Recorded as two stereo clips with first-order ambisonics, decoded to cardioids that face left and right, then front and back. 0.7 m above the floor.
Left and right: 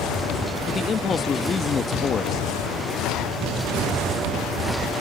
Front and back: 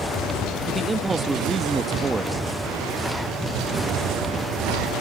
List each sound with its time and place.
0.7 s a man speaking: 115° left